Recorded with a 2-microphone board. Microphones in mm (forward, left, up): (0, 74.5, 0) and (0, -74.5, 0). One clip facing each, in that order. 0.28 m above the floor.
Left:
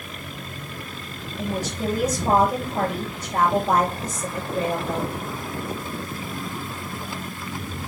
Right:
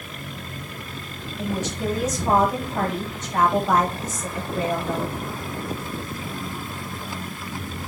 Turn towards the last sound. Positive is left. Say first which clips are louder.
# even
turn(degrees=35)  # may be behind; listen again after turning